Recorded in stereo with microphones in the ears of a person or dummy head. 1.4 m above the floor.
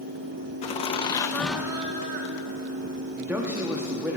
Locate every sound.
0.6 s laughter: 40° left (ahead or behind), 1.0 m; by 3.0 s 75° right (ahead or behind), 1.0 m
3.2 s a man speaking: 10° right (ahead or behind), 0.9 m